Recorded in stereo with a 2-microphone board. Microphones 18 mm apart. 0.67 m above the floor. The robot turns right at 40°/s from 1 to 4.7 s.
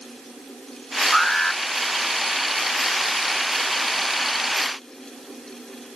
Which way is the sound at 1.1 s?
45° left (ahead or behind).